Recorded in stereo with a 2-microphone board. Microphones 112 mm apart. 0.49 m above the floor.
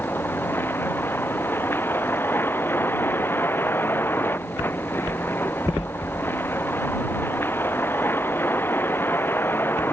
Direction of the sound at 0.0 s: 20° left (ahead or behind).